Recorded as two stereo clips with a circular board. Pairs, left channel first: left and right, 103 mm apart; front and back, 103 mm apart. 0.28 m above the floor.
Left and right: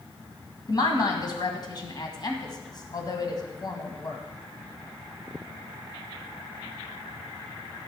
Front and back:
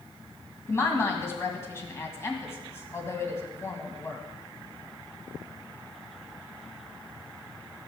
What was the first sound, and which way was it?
A woman speaking, 55° left.